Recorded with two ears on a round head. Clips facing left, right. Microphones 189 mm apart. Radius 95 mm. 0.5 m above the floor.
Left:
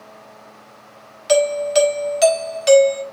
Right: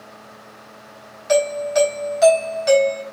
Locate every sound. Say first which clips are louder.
1.3 s a doorbell: left 2 dB; 45° left (ahead or behind), 3.5 m